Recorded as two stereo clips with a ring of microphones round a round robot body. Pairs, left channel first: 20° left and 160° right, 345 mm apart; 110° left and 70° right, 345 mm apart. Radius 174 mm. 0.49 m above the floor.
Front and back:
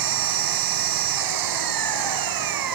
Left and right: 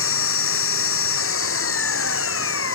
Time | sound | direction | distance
0.0 | an engine running | 170° left | ?